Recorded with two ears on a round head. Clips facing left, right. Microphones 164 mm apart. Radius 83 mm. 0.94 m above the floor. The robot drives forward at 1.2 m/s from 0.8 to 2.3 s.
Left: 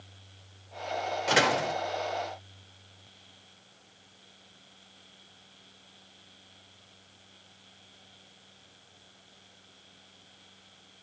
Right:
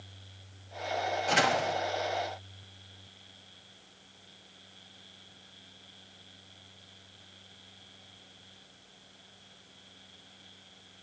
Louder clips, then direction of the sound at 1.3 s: Left 3 dB; 80° left.